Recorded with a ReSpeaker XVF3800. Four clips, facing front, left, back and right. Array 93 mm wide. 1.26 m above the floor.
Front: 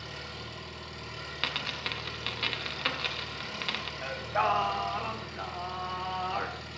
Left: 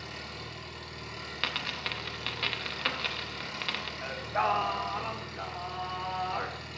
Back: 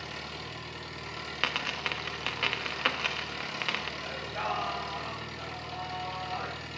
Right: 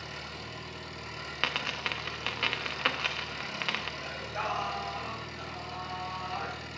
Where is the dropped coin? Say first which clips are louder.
Right 2 dB, back 3 dB; 140° right, 0.6 m.